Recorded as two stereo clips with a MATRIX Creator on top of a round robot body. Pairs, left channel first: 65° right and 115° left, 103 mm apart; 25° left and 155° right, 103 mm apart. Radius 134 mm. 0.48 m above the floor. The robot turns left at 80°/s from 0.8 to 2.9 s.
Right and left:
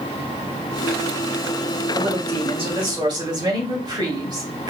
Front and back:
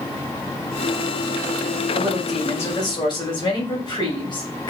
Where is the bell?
No bell in this recording.